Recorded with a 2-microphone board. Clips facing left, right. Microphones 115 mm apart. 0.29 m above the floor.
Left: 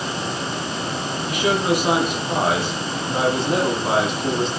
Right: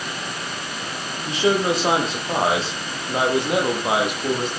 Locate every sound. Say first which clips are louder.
1.2 s a man speaking: right 1 dB; 25° right (ahead or behind), 9 m; by 4.5 s 10° right (ahead or behind), 9 m